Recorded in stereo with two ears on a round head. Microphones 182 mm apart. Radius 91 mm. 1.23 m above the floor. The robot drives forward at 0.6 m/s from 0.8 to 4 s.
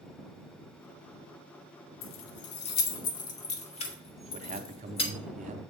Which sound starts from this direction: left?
Keys jangling, at 2.0 s.